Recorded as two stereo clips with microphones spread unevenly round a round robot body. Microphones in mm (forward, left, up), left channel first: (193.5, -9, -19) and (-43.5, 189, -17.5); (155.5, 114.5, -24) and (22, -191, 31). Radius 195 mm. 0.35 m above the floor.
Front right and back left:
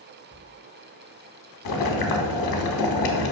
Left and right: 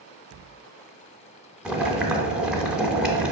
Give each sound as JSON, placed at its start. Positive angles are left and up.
{"t": 1.6, "sound": "boiling", "azimuth_deg": -25, "distance_m": 0.6}